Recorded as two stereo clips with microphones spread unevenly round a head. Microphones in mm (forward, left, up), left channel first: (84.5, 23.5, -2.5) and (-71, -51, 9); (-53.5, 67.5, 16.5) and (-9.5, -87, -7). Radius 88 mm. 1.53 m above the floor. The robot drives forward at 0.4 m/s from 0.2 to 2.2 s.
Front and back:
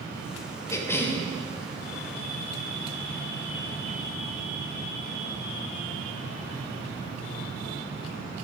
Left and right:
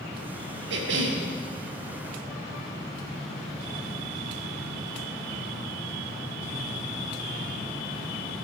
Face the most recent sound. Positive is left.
turn(degrees=-70)